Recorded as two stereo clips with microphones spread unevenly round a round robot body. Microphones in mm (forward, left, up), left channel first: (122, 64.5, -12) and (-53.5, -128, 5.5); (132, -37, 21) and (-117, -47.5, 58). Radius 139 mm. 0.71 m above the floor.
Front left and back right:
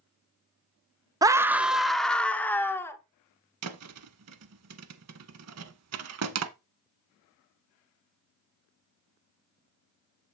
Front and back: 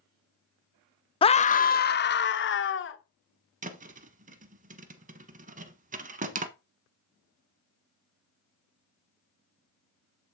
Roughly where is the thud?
Behind right.